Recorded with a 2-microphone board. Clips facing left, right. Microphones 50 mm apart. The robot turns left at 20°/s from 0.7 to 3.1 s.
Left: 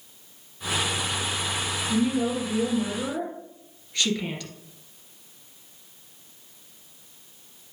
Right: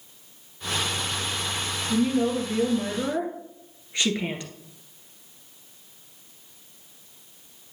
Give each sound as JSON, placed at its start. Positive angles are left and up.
{"t": 1.9, "sound": "a woman speaking", "side_deg": -10, "distance_m": 2.0}